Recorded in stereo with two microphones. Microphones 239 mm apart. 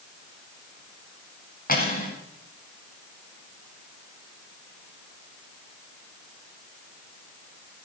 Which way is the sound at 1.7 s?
35° left (ahead or behind).